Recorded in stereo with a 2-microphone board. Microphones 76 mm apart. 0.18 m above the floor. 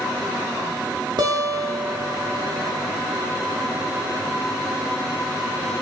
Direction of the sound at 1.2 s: 65° right (ahead or behind).